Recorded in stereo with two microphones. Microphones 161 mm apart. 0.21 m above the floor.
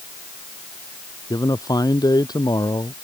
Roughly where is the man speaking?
Left.